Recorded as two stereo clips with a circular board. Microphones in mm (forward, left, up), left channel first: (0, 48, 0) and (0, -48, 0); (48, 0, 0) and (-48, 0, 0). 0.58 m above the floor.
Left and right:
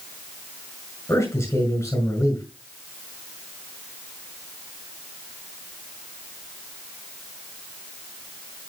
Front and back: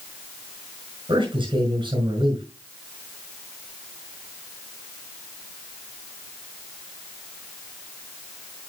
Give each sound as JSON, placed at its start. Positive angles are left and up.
{"t": 1.1, "sound": "a man speaking", "azimuth_deg": 145, "distance_m": 6.0}